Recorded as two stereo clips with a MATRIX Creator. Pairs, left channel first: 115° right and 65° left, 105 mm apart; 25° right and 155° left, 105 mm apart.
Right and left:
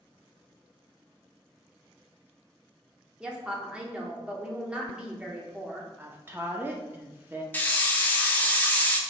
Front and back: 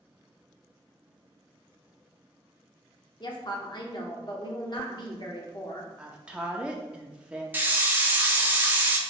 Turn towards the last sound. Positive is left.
turn(degrees=-160)